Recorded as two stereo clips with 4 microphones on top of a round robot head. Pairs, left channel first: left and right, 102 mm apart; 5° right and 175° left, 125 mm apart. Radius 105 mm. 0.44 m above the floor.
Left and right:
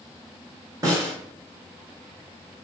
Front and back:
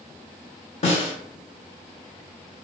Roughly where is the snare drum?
Ahead right.